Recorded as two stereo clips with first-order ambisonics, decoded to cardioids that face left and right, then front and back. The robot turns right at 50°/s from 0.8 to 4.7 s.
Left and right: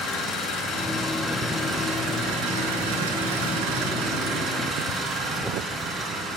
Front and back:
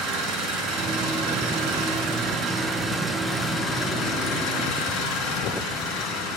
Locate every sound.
0.0 s an engine running: 140° left, 5 m; by 6.4 s 25° right, 5 m